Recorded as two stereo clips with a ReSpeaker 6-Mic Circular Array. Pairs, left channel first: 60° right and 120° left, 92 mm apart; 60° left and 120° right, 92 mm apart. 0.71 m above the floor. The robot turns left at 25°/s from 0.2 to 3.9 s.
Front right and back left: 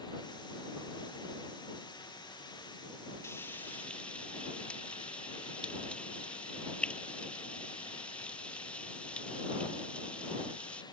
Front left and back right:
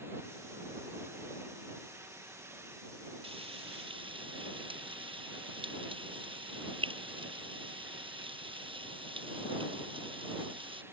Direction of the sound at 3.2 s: 120° right.